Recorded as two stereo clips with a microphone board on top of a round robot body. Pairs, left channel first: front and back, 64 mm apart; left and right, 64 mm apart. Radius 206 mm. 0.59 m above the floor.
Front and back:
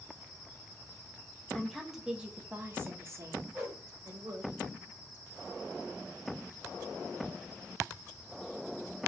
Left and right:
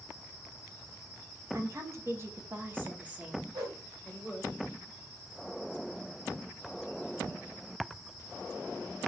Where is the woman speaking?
80° right, 1.0 m; by 4.5 s 175° right, 1.6 m.